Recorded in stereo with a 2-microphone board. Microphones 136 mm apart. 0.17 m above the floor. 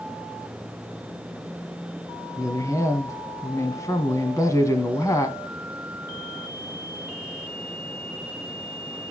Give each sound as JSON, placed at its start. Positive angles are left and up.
{"t": 2.4, "sound": "a woman speaking", "side_deg": 25, "distance_m": 1.3}